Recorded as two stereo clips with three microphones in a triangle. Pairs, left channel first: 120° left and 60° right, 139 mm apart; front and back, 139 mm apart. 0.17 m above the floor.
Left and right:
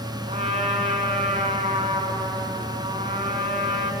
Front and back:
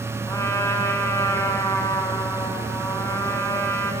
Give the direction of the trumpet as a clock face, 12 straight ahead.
2 o'clock.